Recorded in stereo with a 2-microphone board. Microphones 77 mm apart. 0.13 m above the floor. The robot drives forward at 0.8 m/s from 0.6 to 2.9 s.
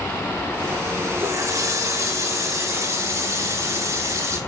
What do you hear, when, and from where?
1.2 s a running tap: 50° right (ahead or behind), 6 m; by 4.4 s 45° right (ahead or behind), 7 m